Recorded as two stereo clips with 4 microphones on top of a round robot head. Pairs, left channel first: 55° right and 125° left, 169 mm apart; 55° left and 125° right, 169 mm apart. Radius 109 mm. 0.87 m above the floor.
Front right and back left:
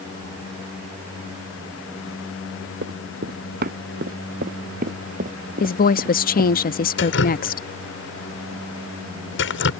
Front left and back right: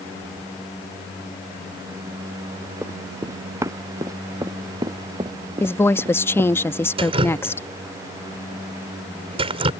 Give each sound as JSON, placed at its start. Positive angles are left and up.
{"t": 2.8, "sound": "running footsteps", "azimuth_deg": 160}
{"t": 5.6, "sound": "a woman speaking", "azimuth_deg": -20}
{"t": 7.0, "sound": "dripping", "azimuth_deg": -65}